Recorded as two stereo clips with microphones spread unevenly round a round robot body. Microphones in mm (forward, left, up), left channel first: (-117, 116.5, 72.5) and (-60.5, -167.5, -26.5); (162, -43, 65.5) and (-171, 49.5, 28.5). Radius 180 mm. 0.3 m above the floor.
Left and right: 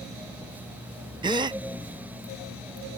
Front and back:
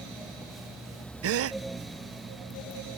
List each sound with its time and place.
1.2 s a gasp: 150° right